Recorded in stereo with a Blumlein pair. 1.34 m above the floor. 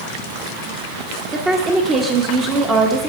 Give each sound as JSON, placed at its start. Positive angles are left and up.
{"t": 1.3, "sound": "a woman speaking", "azimuth_deg": -20, "distance_m": 0.8}